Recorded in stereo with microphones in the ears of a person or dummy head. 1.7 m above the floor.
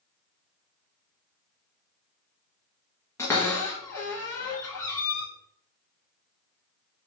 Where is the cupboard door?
10° left (ahead or behind), 1.3 m.